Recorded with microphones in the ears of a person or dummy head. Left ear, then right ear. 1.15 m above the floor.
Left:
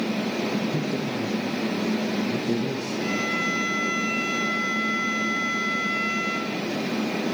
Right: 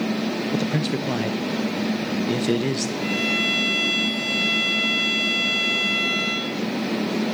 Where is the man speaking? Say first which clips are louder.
Right 2 dB; 65° right (ahead or behind), 0.7 m.